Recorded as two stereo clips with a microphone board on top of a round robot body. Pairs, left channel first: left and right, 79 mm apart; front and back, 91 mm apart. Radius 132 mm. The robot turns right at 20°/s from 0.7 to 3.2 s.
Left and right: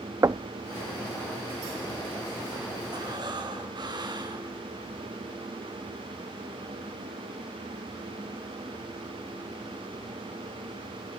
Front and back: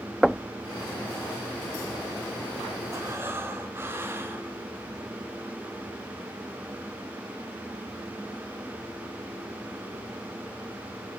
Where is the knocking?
95° right, 0.5 m.